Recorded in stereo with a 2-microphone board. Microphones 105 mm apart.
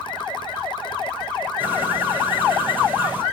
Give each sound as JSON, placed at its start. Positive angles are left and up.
{"t": 1.6, "sound": "a bird", "side_deg": -20, "distance_m": 3.5}